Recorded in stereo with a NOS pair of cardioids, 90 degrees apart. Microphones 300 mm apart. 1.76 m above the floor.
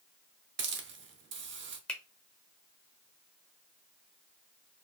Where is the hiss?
40° right, 0.8 m.